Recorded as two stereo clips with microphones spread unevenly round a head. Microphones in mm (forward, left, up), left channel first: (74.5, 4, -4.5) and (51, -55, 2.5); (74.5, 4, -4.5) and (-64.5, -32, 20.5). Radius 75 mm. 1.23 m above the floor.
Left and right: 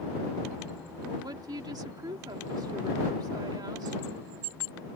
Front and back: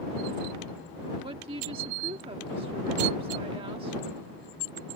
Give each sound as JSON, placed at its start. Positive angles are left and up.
{"t": 1.2, "sound": "a woman speaking", "azimuth_deg": -110}